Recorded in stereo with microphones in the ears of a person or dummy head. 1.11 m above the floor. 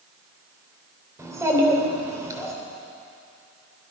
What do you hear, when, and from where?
1.2 s a child speaking: 10° right (ahead or behind), 3 m